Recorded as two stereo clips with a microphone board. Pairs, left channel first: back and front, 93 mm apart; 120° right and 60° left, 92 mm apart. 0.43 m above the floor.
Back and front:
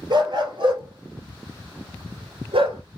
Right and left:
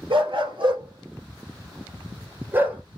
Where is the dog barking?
35° left, 2.5 m; by 2.8 s 15° right, 1.9 m.